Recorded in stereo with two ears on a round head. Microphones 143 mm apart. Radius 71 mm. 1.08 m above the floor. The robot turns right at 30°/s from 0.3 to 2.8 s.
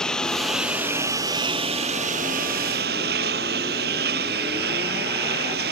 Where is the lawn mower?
175° left; by 5.7 s 110° right.